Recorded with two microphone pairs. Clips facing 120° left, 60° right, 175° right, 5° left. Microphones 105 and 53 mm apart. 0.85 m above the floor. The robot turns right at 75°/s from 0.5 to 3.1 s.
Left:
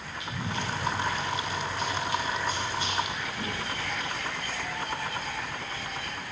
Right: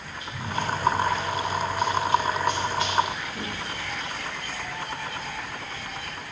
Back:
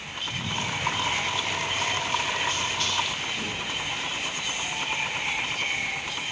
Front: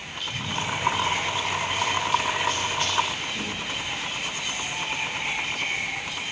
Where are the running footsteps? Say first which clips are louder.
Right 4 dB, front 1 dB; 125° left, 6.5 m; by 3.6 s 45° right, 8 m.